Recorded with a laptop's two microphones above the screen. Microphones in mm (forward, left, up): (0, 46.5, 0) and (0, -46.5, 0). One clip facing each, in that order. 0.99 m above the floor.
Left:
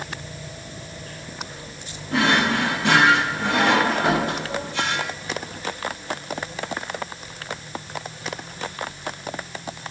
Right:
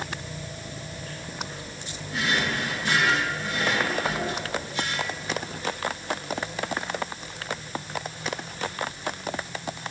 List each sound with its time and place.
2.1 s a drawer: 80° left, 3 m